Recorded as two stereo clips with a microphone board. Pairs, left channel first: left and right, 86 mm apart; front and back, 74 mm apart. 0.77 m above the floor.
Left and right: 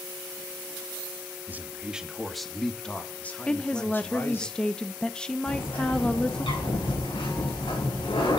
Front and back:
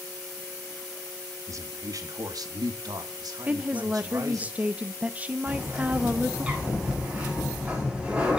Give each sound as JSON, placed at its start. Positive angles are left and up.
{"t": 1.5, "sound": "a man speaking", "azimuth_deg": -150, "distance_m": 1.0}
{"t": 3.5, "sound": "a woman speaking", "azimuth_deg": 155, "distance_m": 0.5}
{"t": 5.5, "sound": "a bird", "azimuth_deg": 100, "distance_m": 6.5}